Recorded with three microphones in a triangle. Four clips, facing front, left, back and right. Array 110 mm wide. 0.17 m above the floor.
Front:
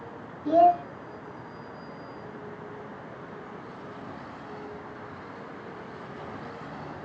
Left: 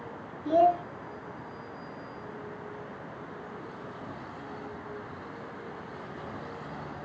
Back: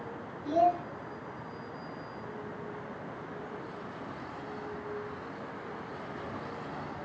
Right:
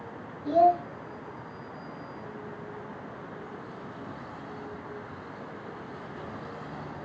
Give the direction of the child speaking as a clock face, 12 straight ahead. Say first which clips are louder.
Right 1 dB, front 7 dB; 12 o'clock.